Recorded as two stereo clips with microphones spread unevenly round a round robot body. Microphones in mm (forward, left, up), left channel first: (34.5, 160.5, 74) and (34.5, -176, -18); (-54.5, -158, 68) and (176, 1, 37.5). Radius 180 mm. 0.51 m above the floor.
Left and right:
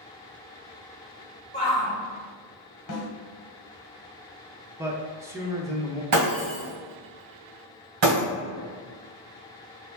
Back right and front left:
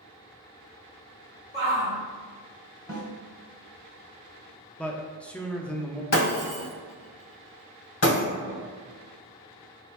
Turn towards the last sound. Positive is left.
turn(degrees=-115)